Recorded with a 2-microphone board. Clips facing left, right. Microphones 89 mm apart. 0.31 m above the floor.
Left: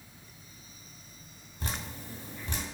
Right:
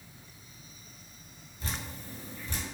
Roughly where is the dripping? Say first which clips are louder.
Left 1 dB; left.